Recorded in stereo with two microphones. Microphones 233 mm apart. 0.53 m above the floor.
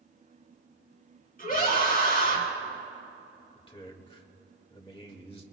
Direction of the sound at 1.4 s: 40° left (ahead or behind).